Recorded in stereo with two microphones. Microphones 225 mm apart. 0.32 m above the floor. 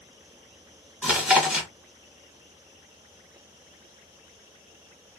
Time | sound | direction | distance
1.0 | chewing | 5° right (ahead or behind) | 1.0 m